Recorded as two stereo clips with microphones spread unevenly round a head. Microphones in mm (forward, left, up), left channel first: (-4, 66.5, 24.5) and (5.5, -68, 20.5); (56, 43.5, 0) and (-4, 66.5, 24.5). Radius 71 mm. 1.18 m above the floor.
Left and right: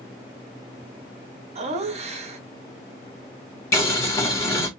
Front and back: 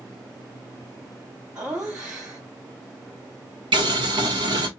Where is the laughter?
105° right, 0.7 m.